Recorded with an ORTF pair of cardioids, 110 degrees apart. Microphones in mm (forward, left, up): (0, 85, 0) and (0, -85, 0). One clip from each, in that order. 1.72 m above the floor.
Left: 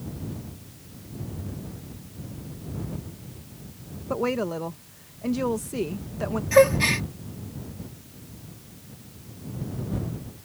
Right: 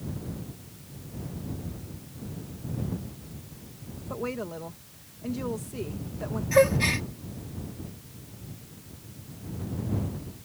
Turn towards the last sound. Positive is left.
turn(degrees=20)